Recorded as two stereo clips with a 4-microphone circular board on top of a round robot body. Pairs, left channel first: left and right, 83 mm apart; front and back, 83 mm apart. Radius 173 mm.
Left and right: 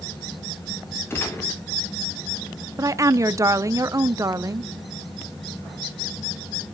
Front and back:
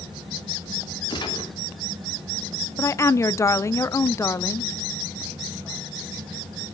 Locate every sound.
1.1 s a gunshot: 30° left, 3 m
2.8 s a woman speaking: 45° right, 0.7 m